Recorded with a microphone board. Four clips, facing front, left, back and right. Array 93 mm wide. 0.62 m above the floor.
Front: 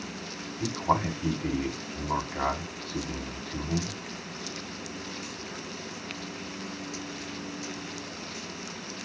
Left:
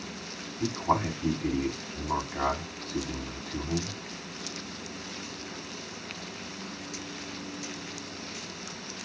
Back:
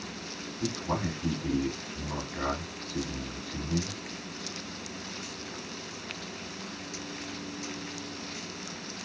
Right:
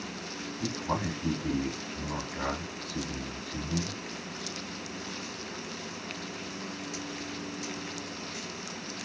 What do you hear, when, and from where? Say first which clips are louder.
0.6 s a man speaking: left 5 dB, front 5 dB; 25° left, 5 m